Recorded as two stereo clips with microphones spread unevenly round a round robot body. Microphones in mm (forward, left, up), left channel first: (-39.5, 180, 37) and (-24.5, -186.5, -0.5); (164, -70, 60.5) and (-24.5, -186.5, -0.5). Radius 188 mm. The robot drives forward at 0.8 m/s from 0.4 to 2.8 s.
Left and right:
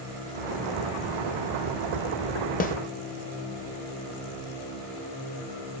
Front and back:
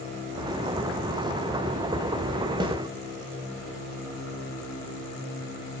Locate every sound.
2.6 s a snare drum: 160° left, 0.7 m; by 2.8 s 165° left, 0.8 m